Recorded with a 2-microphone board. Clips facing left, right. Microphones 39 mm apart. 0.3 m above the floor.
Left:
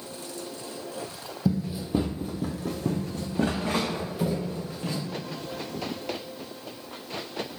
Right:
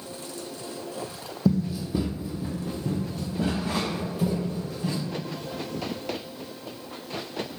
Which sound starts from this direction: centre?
Running footsteps, at 1.4 s.